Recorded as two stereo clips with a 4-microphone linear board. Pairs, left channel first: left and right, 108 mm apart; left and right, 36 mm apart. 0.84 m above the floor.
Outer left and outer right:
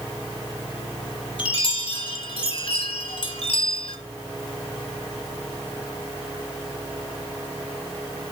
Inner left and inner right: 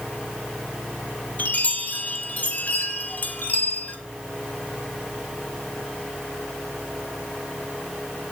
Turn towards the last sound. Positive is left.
turn(degrees=55)  # may be behind; listen again after turning